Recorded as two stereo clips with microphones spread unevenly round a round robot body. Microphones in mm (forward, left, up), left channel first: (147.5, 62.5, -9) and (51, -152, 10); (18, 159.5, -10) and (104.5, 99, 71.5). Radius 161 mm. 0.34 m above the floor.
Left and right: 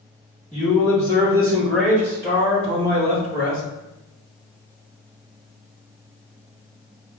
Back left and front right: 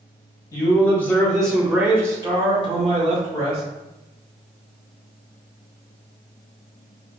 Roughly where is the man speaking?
Behind left.